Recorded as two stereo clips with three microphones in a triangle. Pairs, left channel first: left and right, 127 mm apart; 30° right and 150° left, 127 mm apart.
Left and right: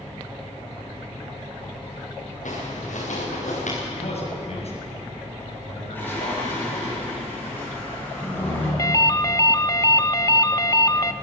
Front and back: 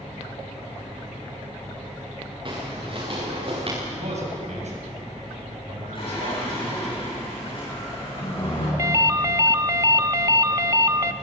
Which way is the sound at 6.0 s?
15° left.